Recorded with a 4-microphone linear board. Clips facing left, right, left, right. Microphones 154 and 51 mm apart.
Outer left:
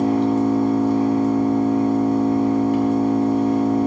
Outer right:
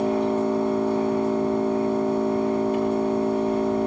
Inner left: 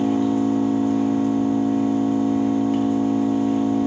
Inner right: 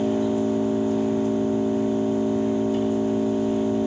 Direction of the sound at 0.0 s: 75° left (ahead or behind).